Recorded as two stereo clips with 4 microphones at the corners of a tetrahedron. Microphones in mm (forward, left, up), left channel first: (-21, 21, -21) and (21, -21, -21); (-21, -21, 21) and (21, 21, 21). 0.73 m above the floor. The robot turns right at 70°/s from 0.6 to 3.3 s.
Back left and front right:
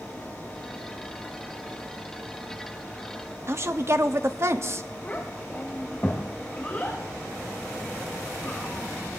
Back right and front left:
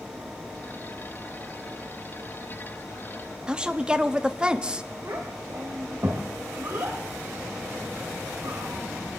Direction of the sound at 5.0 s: 70° left.